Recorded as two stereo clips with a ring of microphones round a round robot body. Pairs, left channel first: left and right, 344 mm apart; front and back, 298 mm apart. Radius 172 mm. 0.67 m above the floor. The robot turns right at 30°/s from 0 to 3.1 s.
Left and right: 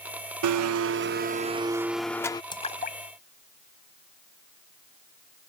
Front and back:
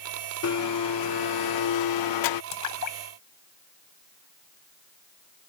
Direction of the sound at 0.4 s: 50° right.